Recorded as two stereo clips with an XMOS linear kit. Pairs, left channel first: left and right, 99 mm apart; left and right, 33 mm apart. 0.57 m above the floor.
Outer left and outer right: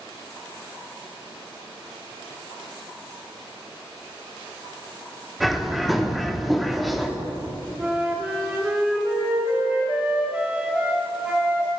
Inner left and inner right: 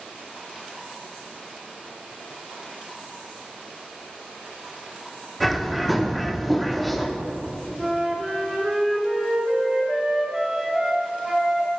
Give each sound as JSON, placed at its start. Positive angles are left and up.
{"t": 5.4, "sound": "a bird", "side_deg": 0, "distance_m": 0.6}
{"t": 7.8, "sound": "a flute", "side_deg": -10, "distance_m": 1.3}